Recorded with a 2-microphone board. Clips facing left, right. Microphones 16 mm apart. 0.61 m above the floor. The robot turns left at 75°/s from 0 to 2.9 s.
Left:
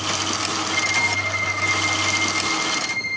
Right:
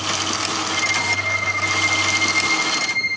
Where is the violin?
Straight ahead, 1.5 m; by 3.2 s 165° right, 1.5 m.